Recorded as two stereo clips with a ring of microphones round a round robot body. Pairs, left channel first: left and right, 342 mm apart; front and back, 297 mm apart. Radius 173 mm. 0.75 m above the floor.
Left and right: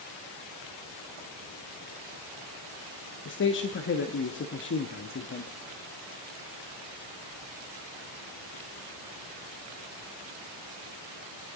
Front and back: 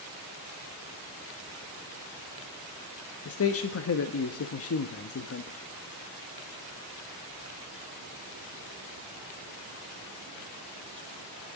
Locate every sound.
3.2 s a man speaking: 35° left, 0.8 m